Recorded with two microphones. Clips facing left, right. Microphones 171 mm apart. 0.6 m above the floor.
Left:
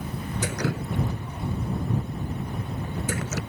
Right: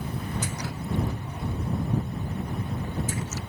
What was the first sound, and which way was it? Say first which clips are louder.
Dripping: left 5 dB; 70° left (ahead or behind).